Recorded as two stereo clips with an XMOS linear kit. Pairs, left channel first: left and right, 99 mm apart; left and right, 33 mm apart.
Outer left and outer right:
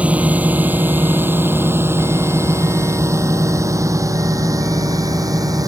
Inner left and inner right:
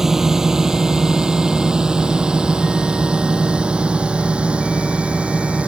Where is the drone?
15° right (ahead or behind); by 5.7 s 40° right (ahead or behind).